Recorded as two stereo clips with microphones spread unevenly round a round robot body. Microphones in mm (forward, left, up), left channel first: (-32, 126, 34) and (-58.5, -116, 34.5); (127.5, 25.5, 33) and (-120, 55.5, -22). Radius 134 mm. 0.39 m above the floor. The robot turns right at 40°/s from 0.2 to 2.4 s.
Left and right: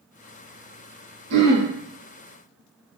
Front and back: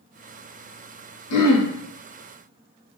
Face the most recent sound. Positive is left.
turn(degrees=-5)